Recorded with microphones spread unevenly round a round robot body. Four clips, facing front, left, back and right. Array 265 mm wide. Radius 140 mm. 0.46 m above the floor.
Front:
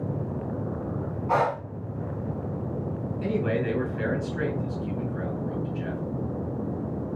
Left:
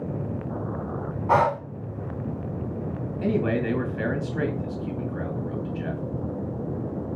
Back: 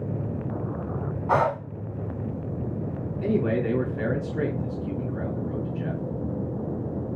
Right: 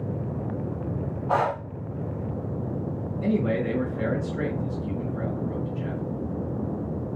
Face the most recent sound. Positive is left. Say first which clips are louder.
# even, back 3 dB
turn(degrees=95)